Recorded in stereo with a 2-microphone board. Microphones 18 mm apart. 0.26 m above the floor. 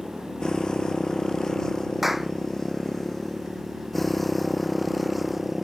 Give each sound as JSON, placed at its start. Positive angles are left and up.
{"t": 0.0, "sound": "a motorcycle", "side_deg": 45}
{"t": 2.0, "sound": "a clap", "side_deg": -10}